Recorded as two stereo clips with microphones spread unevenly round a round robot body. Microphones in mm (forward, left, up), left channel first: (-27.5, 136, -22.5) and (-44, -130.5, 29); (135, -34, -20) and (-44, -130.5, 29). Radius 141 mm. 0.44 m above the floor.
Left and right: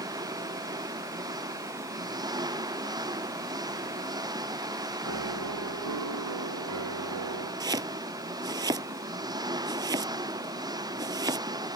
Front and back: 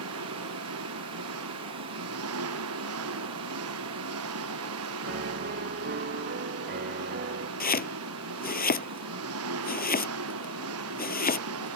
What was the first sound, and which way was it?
An engine running, 170° right.